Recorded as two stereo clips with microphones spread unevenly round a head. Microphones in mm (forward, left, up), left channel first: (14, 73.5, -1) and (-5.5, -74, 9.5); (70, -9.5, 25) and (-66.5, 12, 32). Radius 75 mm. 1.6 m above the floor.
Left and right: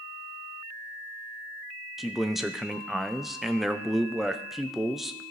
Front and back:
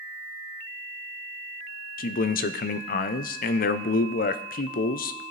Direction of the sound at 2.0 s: 10° right.